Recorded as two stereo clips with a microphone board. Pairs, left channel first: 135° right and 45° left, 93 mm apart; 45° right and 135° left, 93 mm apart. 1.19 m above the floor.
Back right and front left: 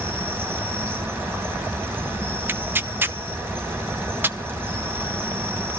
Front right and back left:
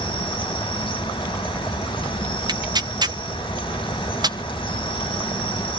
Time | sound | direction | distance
0.0 | an insect | 20° right | 4 m
2.5 | tearing paper | 105° left | 0.8 m